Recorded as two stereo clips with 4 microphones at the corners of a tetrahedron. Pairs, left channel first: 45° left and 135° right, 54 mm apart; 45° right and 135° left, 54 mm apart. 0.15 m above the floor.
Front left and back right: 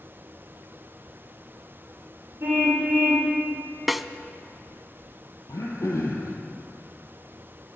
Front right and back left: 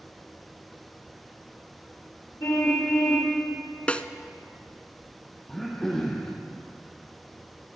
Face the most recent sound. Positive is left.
turn(degrees=35)